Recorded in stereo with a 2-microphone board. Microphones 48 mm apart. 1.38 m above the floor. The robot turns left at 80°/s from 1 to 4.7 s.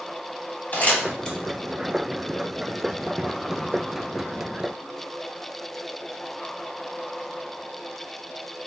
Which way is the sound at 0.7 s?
35° left (ahead or behind).